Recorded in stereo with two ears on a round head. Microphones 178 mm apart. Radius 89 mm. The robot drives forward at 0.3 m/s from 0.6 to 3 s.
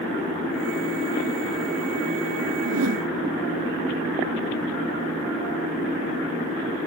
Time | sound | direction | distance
2.6 | a whoosh | 85° right | ?